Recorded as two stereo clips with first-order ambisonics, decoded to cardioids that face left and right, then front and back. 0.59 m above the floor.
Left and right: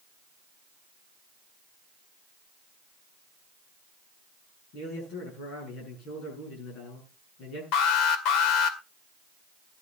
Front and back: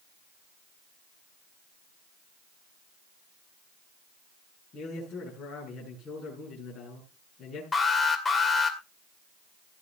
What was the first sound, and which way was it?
A man speaking, 60° left.